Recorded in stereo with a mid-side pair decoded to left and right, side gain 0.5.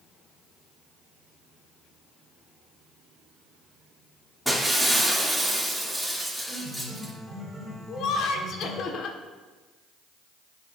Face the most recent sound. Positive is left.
turn(degrees=65)